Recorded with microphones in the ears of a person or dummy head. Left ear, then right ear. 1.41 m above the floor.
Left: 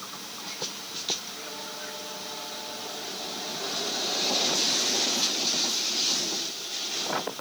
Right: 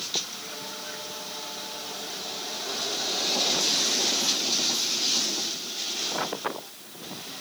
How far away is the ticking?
I don't hear ticking.